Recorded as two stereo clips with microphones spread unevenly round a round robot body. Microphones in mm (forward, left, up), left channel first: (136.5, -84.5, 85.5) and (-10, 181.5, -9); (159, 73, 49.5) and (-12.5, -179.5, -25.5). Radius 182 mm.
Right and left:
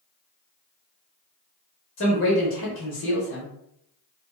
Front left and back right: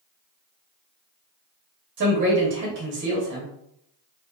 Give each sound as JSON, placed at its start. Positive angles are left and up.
{"t": 2.0, "sound": "a man speaking", "azimuth_deg": -120, "distance_m": 0.8}